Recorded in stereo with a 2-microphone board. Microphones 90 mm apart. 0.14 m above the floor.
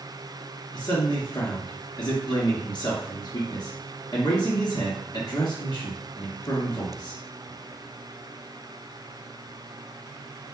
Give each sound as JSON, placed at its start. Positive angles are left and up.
{"t": 0.7, "sound": "a man speaking", "side_deg": 50, "distance_m": 2.0}